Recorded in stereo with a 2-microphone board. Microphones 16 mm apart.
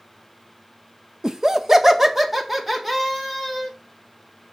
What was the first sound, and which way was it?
Laughter, 50° right (ahead or behind).